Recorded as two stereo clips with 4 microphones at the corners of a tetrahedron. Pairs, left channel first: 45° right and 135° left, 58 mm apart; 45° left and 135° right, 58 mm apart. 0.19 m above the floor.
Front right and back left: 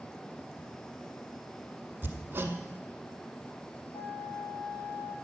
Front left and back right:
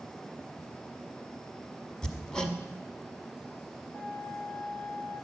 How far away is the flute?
About 3 m.